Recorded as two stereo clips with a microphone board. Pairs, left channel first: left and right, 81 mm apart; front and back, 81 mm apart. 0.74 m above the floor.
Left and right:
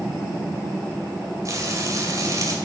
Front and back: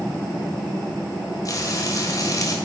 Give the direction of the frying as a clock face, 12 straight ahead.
1 o'clock.